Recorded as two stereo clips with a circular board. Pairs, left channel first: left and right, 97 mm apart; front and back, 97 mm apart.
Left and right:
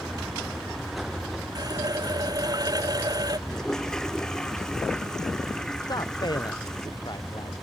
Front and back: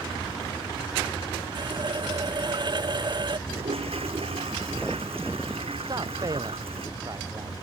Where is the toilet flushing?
175° left.